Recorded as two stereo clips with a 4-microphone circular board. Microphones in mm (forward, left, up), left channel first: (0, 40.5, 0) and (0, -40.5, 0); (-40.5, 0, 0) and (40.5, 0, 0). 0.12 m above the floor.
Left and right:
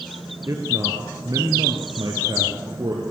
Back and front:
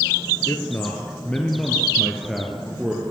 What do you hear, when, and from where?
0.5 s a man speaking: 125° right, 2.5 m; by 3.0 s 80° right, 3 m